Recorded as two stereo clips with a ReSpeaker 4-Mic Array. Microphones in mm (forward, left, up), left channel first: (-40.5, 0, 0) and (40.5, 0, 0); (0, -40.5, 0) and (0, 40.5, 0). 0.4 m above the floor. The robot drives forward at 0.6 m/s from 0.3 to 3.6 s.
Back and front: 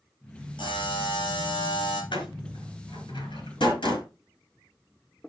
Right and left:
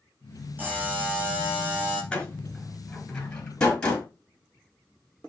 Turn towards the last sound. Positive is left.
turn(degrees=-170)